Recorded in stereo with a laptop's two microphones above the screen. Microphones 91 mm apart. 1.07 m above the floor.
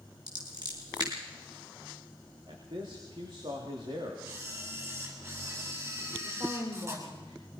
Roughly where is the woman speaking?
Right.